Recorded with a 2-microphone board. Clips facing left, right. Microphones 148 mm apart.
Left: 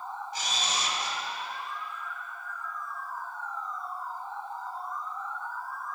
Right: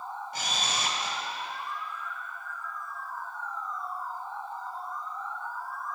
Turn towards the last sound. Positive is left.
turn(degrees=-55)  # may be behind; listen again after turning